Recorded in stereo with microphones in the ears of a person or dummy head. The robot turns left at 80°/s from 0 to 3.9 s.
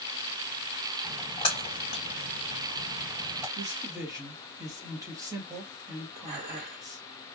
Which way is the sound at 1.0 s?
5° right (ahead or behind).